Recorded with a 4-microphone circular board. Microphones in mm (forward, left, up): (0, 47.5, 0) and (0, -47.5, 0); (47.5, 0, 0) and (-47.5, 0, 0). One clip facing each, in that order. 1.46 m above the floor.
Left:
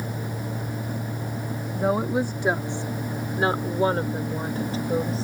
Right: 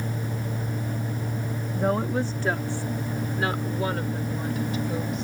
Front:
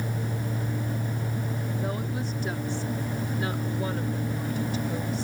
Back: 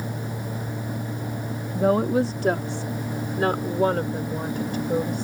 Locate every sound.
1.8 s a woman speaking: 175° left; by 5.2 s 145° left